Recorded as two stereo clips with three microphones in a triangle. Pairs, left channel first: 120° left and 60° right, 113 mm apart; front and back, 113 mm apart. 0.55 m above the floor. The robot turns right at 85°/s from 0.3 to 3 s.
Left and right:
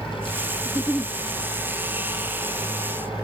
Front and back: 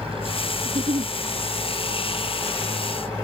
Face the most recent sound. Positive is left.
turn(degrees=25)